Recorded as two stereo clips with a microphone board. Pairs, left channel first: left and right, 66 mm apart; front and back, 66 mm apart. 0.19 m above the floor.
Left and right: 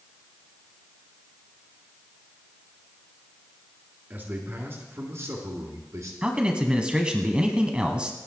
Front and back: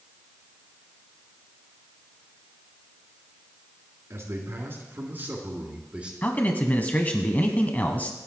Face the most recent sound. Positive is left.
turn(degrees=-30)